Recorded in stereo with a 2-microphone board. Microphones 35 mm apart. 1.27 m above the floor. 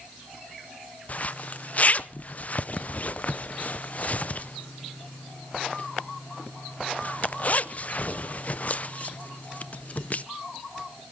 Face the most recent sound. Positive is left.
turn(degrees=45)  # may be behind; listen again after turning